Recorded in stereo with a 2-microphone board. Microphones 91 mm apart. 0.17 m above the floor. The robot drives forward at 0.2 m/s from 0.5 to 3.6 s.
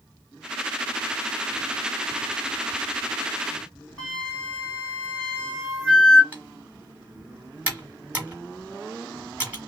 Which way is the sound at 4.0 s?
5° left (ahead or behind).